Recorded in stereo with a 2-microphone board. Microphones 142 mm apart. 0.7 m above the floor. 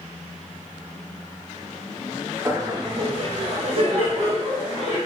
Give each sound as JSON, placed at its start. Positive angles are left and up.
{"t": 2.5, "sound": "laughter", "side_deg": -20, "distance_m": 0.6}